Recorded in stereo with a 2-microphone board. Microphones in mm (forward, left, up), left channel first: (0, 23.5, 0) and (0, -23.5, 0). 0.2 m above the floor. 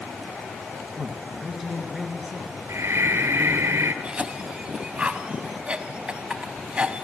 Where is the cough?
25° right (ahead or behind), 1.1 m.